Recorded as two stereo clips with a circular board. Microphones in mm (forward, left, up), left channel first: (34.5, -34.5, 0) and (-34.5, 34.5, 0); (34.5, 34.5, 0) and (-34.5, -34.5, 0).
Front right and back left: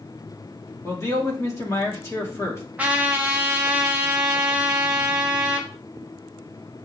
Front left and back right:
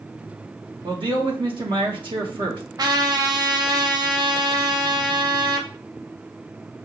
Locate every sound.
0.8 s a man speaking: 105° right, 1.2 m
2.8 s a trumpet: 155° right, 0.7 m